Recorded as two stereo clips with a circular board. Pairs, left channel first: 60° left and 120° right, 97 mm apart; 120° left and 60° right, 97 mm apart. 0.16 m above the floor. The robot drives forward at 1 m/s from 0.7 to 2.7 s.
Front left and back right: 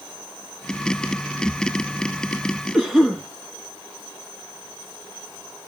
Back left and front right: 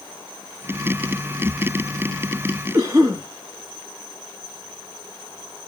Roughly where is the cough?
Ahead right.